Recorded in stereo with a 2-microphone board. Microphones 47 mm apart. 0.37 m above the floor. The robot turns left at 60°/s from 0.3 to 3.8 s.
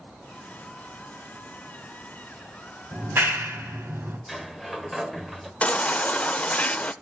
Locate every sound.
2.9 s a clap: 50° right (ahead or behind), 2 m; by 4.2 s 60° right (ahead or behind), 2 m
4.3 s a sliding door: 5° right (ahead or behind), 1.1 m
5.6 s a baby crying: 30° left (ahead or behind), 0.5 m